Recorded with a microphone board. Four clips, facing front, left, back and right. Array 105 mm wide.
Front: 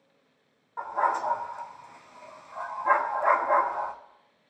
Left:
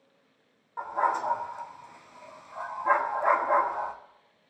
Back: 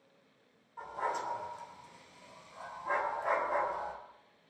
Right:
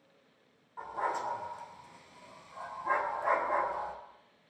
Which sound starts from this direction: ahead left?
A dog barking, at 0.8 s.